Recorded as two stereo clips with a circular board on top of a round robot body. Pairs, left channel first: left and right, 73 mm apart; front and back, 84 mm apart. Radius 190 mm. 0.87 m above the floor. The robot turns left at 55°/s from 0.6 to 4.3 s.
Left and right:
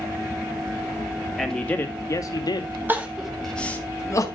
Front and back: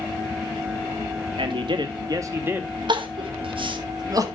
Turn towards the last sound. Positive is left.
turn(degrees=130)